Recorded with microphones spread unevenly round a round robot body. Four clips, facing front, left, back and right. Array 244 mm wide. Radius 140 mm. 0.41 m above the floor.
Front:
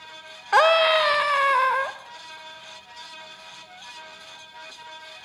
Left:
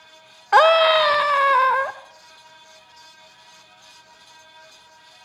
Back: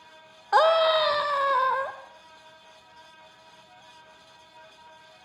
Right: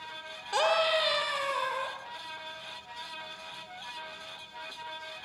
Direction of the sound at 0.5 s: 75° left.